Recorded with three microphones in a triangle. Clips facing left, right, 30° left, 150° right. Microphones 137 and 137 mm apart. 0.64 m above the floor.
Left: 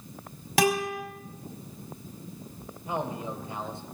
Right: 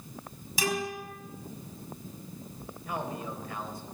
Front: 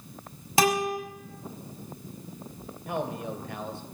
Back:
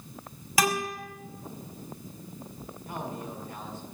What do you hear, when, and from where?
0.6 s a guitar: 90° left, 4 m
2.9 s a man speaking: 25° left, 2.5 m